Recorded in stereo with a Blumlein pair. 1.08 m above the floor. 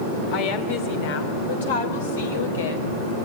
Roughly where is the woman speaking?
Ahead left.